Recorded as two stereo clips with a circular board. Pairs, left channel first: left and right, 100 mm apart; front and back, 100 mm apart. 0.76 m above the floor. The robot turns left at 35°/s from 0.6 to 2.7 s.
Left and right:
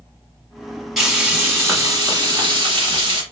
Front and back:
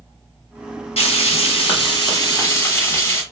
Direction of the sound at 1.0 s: 5° right.